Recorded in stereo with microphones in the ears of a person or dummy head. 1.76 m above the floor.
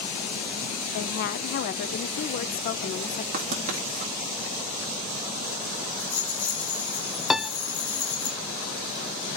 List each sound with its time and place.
0.9 s a woman speaking: 55° left (ahead or behind), 0.9 m
3.3 s writing: 40° right (ahead or behind), 2 m
6.0 s a rattle: 10° left (ahead or behind), 4 m
7.3 s a piano: 5° right (ahead or behind), 0.5 m